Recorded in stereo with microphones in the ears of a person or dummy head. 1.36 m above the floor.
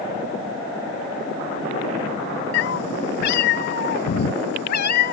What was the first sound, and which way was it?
A cat meowing, 70° left (ahead or behind).